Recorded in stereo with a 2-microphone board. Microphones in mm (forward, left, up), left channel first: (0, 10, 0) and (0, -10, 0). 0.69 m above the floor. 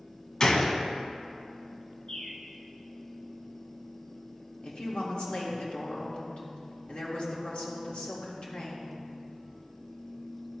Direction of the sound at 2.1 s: 45° left (ahead or behind).